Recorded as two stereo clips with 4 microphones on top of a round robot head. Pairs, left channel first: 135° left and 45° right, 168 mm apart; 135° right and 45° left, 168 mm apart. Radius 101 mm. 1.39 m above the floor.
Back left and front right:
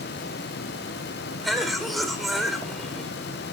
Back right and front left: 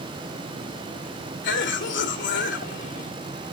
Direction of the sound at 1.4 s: 140° right.